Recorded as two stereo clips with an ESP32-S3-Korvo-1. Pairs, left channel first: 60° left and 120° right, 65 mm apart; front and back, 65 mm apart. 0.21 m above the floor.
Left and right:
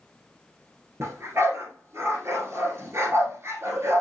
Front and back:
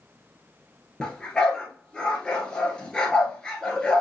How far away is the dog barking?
About 1.6 m.